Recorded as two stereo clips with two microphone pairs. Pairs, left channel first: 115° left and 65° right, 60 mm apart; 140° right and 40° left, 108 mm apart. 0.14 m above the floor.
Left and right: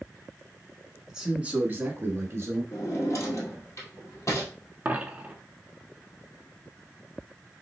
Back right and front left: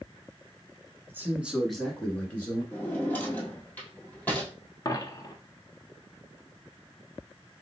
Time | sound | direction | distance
1.1 | a man speaking | 10° left | 1.1 m
2.7 | a drawer | 145° left | 1.8 m
4.8 | a dropped coin | 110° right | 0.7 m